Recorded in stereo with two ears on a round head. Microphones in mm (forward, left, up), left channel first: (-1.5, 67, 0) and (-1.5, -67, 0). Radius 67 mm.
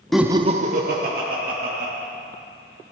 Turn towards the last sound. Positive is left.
turn(degrees=-70)  # may be behind; listen again after turning